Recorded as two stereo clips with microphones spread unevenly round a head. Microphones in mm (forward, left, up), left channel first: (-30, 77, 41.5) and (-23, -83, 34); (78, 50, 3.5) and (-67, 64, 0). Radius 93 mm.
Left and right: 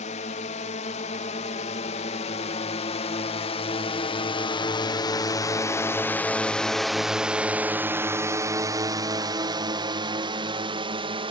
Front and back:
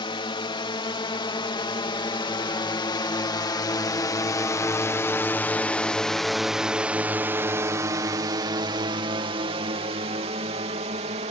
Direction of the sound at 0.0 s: 45° left.